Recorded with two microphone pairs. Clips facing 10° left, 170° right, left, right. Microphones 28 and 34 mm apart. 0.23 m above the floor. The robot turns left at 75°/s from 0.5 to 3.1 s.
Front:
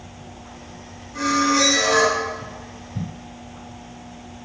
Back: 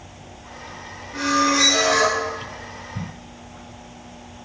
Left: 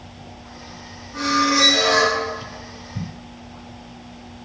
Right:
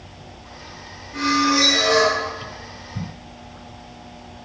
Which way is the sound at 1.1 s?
145° right.